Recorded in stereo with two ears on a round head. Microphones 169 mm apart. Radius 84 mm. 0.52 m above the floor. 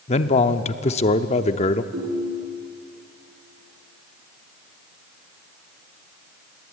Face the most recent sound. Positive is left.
turn(degrees=-75)  # may be behind; listen again after turning